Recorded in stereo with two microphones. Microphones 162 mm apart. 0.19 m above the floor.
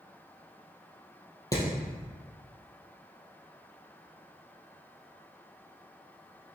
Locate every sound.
1.5 s hammering: 20° left (ahead or behind), 3.5 m